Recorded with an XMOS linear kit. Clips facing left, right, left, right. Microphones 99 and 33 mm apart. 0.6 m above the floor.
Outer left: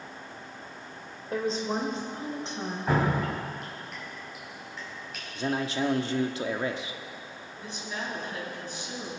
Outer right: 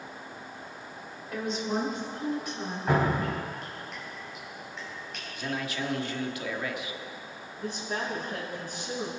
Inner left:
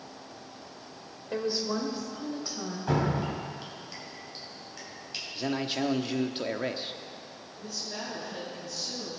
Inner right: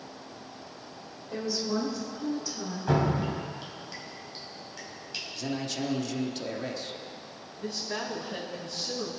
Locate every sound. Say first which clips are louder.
1.3 s a woman speaking: outer left 2 dB, inner left 1 dB; 35° left (ahead or behind), 2.5 m; by 2.8 s 25° left (ahead or behind), 3.5 m
2.9 s dripping: outer right 1 dB, inner right 2 dB; centre (ahead or behind), 4 m
5.3 s a man speaking: outer left 5 dB, inner left 3 dB; 30° left (ahead or behind), 0.9 m
7.6 s a woman speaking: outer right 4 dB, inner right 4 dB; 45° right (ahead or behind), 4.5 m